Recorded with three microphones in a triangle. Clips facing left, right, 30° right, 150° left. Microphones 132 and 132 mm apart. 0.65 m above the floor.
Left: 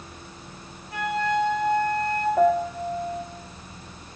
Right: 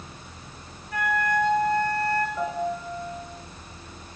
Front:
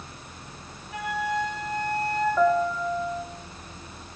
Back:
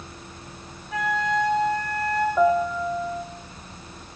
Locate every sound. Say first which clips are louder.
0.9 s a flute: left 1 dB, back 4 dB; 155° left, 3.5 m
2.4 s a piano: left 7 dB, back 2 dB; 80° left, 1.5 m